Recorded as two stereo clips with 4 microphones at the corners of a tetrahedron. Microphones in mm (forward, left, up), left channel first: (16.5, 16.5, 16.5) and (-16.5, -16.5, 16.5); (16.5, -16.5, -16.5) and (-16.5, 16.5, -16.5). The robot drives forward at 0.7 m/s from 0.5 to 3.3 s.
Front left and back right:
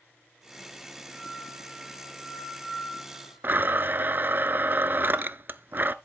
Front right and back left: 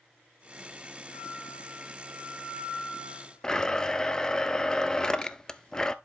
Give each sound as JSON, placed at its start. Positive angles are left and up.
{"t": 1.1, "sound": "a flute", "azimuth_deg": -35, "distance_m": 5.5}
{"t": 3.4, "sound": "a blender", "azimuth_deg": -115, "distance_m": 0.5}